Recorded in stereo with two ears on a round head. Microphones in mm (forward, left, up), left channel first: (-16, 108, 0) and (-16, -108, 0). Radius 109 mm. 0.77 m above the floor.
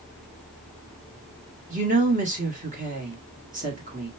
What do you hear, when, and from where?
1.7 s a woman speaking: 35° right (ahead or behind), 1.6 m